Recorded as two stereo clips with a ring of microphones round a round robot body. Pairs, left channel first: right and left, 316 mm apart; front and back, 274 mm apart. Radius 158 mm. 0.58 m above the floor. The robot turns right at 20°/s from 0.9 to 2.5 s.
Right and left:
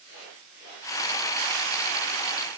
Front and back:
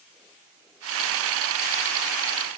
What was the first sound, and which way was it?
Only background noise.